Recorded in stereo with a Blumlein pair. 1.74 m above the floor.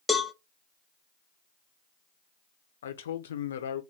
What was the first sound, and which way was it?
A cowbell, 5° left.